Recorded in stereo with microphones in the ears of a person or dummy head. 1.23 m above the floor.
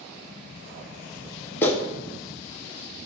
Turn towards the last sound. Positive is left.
turn(degrees=15)  # may be behind; listen again after turning